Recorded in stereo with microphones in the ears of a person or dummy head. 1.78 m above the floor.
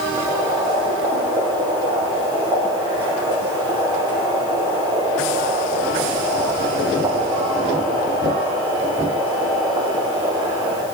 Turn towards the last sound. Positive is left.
turn(degrees=-20)  # may be behind; listen again after turning